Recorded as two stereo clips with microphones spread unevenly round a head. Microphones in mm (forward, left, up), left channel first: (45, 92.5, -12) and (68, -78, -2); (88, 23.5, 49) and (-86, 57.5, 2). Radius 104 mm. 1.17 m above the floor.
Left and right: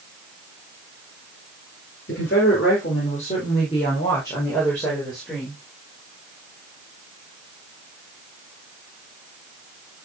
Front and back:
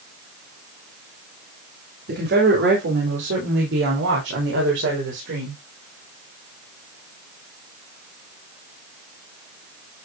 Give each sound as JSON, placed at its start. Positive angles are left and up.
{"t": 2.1, "sound": "a woman speaking", "azimuth_deg": 140, "distance_m": 4.5}